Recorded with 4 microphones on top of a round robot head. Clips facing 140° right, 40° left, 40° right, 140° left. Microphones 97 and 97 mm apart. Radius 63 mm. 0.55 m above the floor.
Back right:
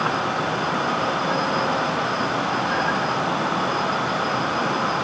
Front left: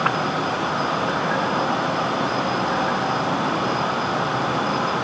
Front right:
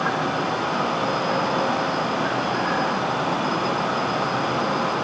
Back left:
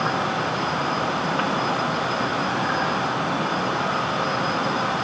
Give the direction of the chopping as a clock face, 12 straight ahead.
I don't hear chopping.